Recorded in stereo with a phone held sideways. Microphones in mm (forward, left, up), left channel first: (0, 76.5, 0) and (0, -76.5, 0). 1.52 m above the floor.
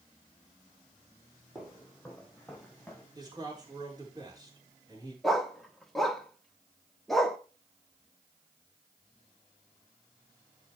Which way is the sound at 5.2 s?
Centre (ahead or behind).